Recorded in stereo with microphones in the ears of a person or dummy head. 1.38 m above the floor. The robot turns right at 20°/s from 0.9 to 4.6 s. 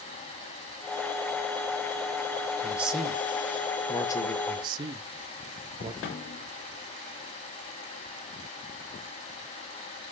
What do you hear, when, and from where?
2.6 s a man speaking: 10° right, 1.4 m; by 4.4 s 25° left, 1.4 m
4.5 s a man speaking: 25° right (ahead or behind), 0.7 m
6.0 s a snare drum: 40° left (ahead or behind), 1.0 m